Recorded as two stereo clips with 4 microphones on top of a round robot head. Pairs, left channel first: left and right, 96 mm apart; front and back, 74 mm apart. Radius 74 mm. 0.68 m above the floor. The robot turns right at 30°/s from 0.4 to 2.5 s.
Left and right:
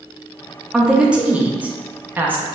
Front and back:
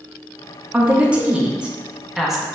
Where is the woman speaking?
160° right, 0.8 m; by 2.5 s 110° right, 0.8 m.